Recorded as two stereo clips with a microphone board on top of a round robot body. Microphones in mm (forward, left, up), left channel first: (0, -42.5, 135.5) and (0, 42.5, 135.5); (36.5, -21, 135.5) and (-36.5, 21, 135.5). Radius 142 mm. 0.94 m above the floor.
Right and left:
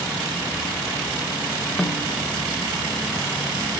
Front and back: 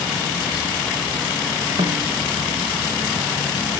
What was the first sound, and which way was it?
A snare drum, 175° right.